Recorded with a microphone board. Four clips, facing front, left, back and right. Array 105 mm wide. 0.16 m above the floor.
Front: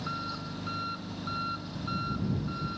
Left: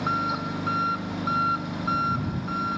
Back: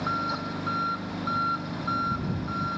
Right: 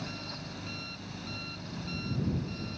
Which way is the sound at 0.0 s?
115° left.